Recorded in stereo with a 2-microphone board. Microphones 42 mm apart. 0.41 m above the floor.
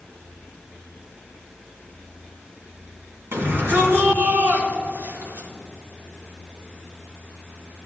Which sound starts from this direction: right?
A shout, at 3.3 s.